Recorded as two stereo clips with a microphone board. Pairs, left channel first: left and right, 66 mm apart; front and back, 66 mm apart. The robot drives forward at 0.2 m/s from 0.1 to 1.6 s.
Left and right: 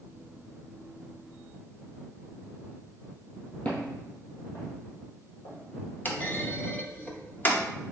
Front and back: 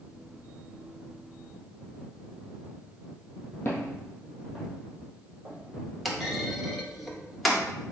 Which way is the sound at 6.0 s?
85° left.